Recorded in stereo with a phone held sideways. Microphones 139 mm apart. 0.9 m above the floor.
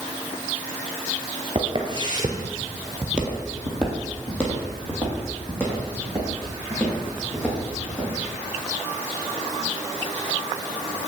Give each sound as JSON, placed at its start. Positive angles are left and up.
{"t": 1.6, "sound": "footsteps", "side_deg": -45, "distance_m": 1.2}